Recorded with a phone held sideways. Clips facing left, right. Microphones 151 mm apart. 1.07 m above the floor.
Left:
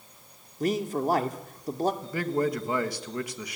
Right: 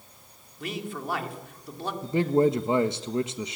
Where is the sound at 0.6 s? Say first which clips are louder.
Left 8 dB; 40° left (ahead or behind), 2.5 m.